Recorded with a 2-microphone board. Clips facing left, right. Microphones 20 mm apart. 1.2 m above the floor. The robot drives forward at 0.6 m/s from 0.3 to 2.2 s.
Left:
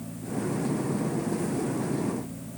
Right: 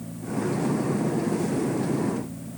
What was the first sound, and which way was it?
Only background noise.